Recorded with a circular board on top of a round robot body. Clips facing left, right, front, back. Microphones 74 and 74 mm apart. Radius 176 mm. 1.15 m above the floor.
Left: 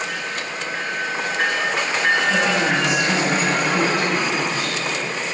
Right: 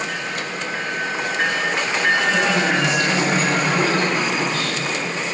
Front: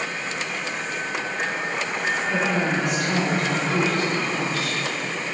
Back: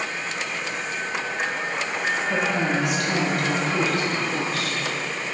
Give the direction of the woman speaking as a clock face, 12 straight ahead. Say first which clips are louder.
Even, front 1 dB; 6 o'clock.